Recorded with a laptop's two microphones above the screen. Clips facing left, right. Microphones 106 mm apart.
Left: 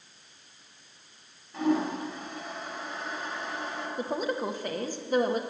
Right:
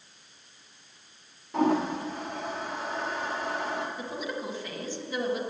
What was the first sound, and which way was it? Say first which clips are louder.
A toilet flushing: right 2 dB; 80° right.